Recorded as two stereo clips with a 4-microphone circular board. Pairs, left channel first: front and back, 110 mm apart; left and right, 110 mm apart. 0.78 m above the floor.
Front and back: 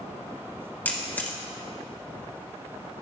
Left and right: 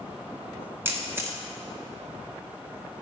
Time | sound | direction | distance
0.8 | a camera shutter | 55° right | 0.9 m